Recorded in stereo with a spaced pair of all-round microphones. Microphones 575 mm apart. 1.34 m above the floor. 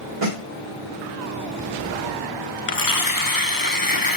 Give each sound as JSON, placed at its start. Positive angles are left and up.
{"t": 0.2, "sound": "a snare drum", "side_deg": -65, "distance_m": 1.7}
{"t": 2.7, "sound": "tearing paper", "side_deg": 40, "distance_m": 0.5}